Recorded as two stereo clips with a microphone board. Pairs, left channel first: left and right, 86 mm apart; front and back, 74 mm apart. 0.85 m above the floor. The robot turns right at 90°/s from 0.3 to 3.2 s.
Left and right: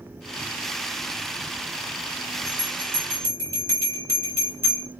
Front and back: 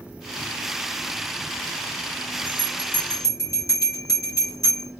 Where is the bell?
35° right, 2.5 m; by 4.9 s 35° left, 2.5 m.